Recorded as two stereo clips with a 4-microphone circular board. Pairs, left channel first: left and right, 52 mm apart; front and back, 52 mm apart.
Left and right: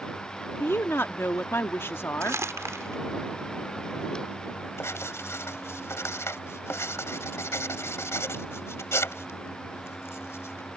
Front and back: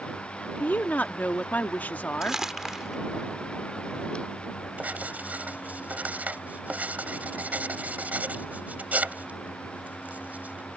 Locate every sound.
0.6 s a woman speaking: 55° left
2.2 s crumpling: 100° right
4.8 s writing: 120° left